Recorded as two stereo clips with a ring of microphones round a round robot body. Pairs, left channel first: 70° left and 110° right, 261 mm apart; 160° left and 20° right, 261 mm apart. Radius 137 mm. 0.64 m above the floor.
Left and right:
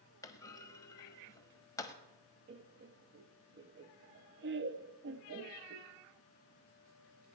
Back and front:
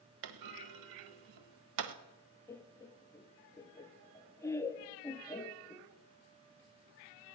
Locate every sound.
0.2 s a clunk: 10° right, 0.9 m
2.5 s laughter: 125° right, 0.8 m